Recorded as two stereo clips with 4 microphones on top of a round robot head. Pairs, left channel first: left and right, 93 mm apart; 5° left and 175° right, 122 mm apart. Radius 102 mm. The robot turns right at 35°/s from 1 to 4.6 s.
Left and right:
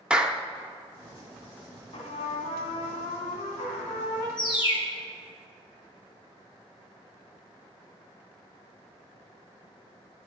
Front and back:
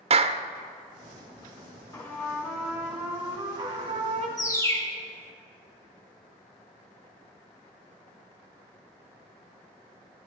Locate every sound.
0.1 s a clap: 170° right, 0.7 m
1.9 s a trumpet: 65° left, 2.5 m; by 4.3 s 145° left, 2.5 m
4.4 s a bird: 60° left, 3 m; by 4.9 s 70° left, 3 m